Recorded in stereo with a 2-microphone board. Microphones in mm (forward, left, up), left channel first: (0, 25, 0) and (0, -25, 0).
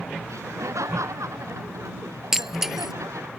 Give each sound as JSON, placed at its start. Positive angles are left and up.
{"t": 0.3, "sound": "laughter", "side_deg": -85}
{"t": 2.3, "sound": "breaking glass", "side_deg": -5}